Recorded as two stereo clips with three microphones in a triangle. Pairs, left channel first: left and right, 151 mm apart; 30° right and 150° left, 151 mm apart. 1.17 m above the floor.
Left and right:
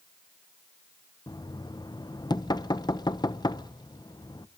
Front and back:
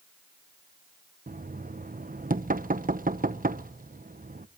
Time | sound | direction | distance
1.3 | knocking | 150° left | 0.7 m